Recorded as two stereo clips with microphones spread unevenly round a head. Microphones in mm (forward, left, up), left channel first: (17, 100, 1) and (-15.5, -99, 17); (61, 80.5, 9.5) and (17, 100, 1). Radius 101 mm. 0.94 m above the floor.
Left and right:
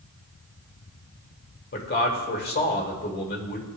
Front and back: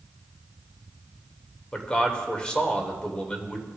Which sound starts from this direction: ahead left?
A man speaking, at 1.7 s.